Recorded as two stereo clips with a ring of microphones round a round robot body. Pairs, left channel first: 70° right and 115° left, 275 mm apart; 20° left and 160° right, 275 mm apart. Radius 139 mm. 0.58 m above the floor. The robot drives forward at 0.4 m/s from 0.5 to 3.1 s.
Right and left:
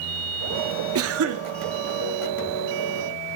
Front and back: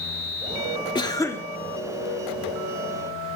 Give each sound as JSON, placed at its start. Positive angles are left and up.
{"t": 0.9, "sound": "a cough", "azimuth_deg": 95, "distance_m": 1.4}